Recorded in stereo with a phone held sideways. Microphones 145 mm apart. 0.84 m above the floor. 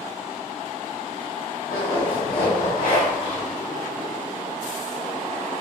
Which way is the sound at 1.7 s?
75° left (ahead or behind).